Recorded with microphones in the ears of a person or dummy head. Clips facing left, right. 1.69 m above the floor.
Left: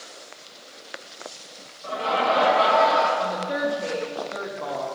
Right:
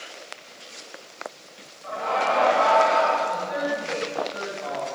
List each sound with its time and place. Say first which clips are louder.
1.8 s laughter: left 1 dB; 40° left (ahead or behind), 1.7 m
3.2 s a woman speaking: left 1 dB; 75° left (ahead or behind), 3 m